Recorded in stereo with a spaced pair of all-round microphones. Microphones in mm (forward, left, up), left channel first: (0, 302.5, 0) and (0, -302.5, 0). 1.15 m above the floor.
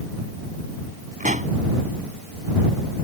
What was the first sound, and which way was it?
A pop, 10° right (ahead or behind).